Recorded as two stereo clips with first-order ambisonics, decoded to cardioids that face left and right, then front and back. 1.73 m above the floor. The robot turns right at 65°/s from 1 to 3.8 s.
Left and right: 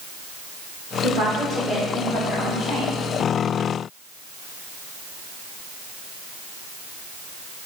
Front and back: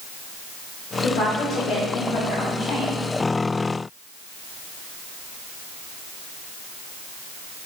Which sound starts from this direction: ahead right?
A woman speaking, at 1.0 s.